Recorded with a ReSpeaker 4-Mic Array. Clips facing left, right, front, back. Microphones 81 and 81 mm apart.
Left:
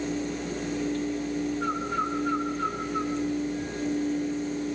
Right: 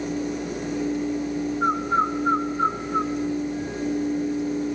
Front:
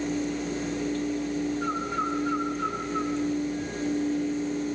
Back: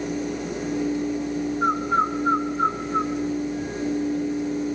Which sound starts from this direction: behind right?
A bird, at 1.6 s.